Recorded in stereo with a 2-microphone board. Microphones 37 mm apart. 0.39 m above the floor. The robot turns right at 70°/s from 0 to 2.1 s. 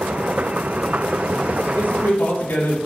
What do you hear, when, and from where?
1.6 s a man speaking: 45° left, 5 m; by 2.8 s 75° left, 5 m